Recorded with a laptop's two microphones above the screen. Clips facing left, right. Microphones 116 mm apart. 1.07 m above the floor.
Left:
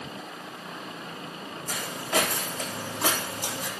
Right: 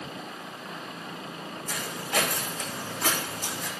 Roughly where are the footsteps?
Left.